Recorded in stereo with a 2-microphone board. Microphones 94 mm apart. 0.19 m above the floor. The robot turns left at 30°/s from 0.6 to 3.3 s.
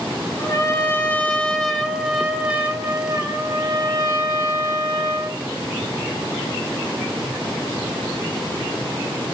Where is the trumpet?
35° left, 0.7 m; by 5.4 s 45° right, 0.7 m.